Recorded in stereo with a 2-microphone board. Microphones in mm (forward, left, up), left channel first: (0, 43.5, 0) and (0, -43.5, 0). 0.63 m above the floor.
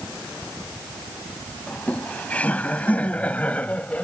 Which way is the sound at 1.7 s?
15° left (ahead or behind).